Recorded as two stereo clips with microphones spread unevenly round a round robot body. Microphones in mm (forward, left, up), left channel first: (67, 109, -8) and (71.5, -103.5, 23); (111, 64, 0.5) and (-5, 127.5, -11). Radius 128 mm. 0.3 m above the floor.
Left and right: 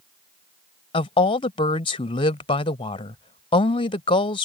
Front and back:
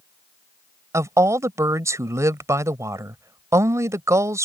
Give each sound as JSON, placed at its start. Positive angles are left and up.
{"t": 0.9, "sound": "a woman speaking", "azimuth_deg": 115}